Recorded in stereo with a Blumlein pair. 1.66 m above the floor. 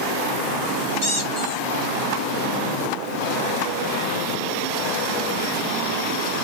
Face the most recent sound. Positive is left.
turn(degrees=45)